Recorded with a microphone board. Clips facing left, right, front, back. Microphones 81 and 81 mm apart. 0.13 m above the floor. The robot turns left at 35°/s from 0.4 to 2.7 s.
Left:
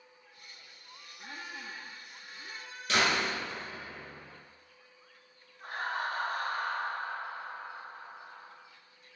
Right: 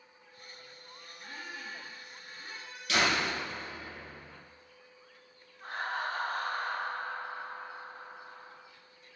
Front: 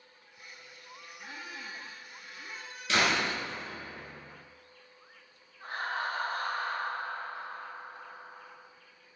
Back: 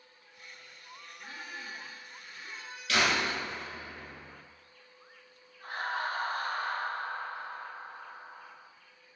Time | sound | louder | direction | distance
1.2 | a squeak | even, even | 75° left | 1.3 m
2.9 | a door slam | even, even | 55° left | 1.4 m
5.6 | laughter | even, even | 20° left | 1.3 m